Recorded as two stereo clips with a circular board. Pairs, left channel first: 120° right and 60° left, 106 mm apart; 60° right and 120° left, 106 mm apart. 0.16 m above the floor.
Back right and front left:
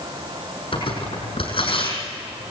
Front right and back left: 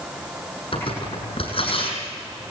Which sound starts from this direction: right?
Tearing paper, at 0.7 s.